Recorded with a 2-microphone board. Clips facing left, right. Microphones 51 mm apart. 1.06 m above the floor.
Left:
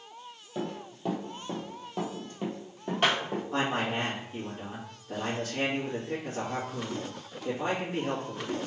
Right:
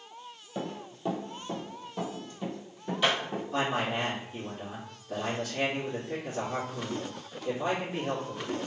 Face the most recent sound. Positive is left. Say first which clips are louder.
# even
turn(degrees=35)  # may be behind; listen again after turning